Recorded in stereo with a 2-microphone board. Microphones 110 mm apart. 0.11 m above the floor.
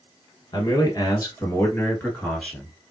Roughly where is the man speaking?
Left.